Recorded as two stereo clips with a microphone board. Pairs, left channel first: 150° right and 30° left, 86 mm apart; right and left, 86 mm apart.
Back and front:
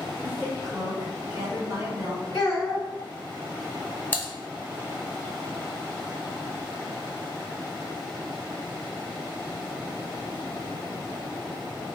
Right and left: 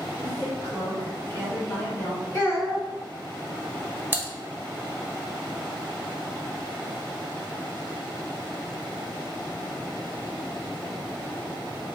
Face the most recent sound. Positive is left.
turn(degrees=145)